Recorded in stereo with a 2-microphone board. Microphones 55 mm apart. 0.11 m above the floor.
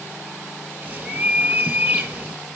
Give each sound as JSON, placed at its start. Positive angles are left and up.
{"t": 0.8, "sound": "a bird", "side_deg": -30, "distance_m": 2.0}